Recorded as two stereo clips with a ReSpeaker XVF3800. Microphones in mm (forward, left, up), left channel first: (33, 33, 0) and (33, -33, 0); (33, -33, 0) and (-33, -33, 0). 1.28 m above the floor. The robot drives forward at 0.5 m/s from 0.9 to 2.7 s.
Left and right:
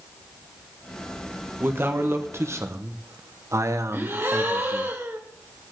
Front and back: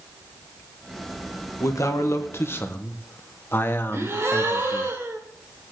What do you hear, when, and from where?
1.6 s a man speaking: 35° right, 1.4 m; by 4.9 s 55° right, 1.0 m
3.9 s a gasp: 140° right, 1.6 m